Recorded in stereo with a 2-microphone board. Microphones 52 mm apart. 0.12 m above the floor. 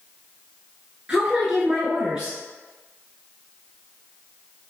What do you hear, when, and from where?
1.1 s a woman speaking: 15° right (ahead or behind), 1.5 m